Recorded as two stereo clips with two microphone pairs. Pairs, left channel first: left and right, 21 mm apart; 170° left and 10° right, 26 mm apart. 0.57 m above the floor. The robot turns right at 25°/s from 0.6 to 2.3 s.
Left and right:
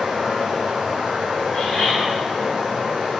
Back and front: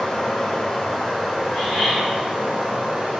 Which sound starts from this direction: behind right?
Running water, at 0.0 s.